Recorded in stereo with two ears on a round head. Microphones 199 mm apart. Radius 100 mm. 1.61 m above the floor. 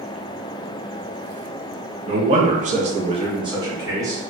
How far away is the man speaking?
About 0.6 m.